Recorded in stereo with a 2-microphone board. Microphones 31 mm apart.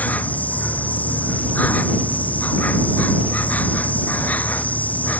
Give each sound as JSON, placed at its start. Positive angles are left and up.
{"t": 0.0, "sound": "an insect", "side_deg": 55}